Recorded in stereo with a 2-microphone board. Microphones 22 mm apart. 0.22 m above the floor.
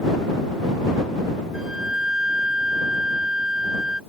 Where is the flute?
30° right (ahead or behind).